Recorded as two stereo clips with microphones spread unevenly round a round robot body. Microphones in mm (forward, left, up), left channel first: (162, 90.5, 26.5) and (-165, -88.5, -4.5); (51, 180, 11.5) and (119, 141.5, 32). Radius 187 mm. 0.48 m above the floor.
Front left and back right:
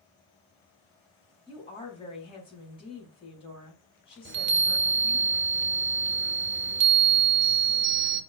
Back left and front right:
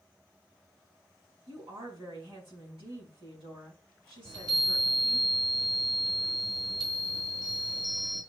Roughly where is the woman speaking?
Ahead right.